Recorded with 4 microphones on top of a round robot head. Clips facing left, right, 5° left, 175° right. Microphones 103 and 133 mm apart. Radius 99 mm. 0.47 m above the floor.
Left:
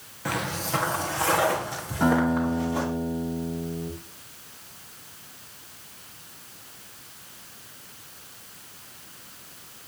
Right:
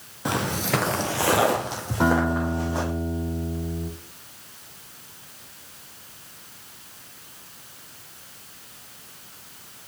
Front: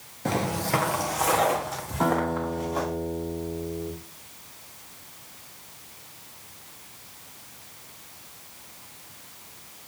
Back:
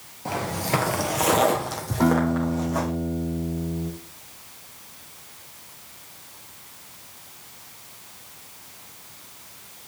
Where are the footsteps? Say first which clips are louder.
Right 4 dB, front 1 dB; 30° right, 0.5 m; by 2.9 s 145° right, 2.5 m.